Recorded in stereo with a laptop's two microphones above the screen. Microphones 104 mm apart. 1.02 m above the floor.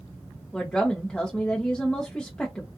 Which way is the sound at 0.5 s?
10° left (ahead or behind).